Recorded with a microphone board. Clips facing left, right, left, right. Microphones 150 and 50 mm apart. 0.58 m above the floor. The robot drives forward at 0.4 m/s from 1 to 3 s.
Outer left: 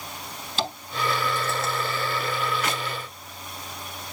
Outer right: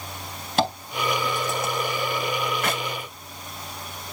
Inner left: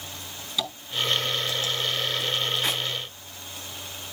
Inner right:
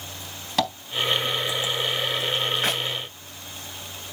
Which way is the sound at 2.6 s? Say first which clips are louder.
Outer right 2 dB, inner right 2 dB; 55° right (ahead or behind).